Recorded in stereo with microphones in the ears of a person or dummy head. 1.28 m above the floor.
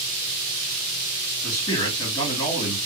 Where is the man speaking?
25° left (ahead or behind), 2 m.